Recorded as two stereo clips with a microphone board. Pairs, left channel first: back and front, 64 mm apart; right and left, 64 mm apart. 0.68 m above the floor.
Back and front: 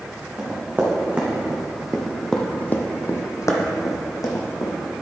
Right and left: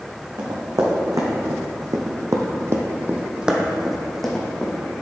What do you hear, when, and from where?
0.4 s running footsteps: 65° left, 2.5 m; by 4.8 s 165° right, 2 m